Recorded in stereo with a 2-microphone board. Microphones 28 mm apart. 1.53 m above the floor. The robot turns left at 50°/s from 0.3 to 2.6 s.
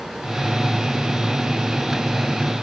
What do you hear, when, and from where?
Only background noise.